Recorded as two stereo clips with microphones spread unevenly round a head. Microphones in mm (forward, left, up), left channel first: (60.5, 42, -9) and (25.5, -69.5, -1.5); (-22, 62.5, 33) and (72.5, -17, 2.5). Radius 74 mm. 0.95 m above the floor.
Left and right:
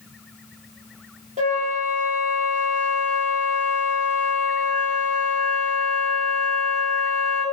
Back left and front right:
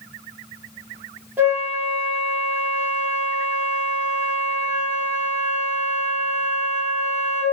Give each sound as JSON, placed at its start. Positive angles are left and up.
{"t": 1.4, "sound": "a flute", "azimuth_deg": -125, "distance_m": 0.8}